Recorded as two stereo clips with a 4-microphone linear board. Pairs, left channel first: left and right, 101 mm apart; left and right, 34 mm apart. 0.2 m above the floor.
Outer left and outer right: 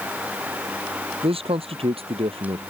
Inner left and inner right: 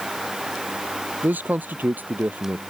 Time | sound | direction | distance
1.2 | a man speaking | 75° right (ahead or behind) | ?